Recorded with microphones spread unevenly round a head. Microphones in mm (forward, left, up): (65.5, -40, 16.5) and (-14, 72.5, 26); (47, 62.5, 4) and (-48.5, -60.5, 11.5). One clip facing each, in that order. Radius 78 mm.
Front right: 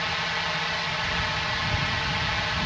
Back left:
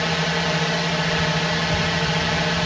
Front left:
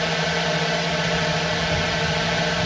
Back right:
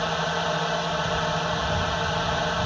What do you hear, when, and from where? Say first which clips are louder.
0.0 s a drone: back left 8 dB, front left 3 dB; 115° left